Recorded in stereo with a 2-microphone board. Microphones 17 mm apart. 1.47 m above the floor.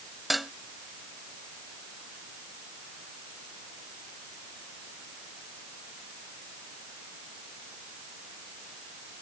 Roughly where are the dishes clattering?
Centre.